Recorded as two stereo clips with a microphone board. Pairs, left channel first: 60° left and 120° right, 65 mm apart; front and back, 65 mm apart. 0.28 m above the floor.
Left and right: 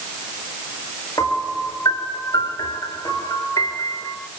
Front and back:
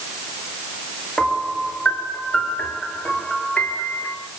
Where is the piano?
70° left, 4.5 m.